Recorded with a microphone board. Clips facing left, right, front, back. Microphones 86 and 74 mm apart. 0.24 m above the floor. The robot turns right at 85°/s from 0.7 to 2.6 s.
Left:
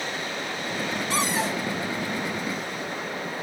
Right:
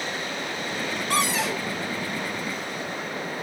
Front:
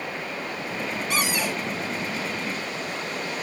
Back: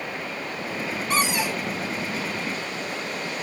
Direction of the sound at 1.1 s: 130° right.